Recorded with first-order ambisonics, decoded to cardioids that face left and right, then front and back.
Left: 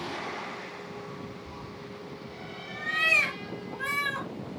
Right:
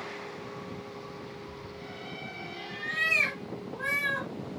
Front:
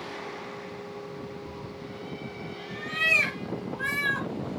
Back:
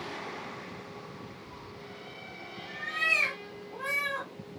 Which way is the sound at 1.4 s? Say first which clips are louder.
Even, front 5 dB; 55° left.